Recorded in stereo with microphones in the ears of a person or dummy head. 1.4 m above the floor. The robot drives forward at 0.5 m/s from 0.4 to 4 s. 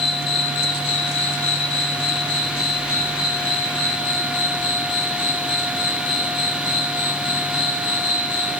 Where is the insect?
55° left (ahead or behind), 1.8 m; by 8.6 s 45° left (ahead or behind), 2 m.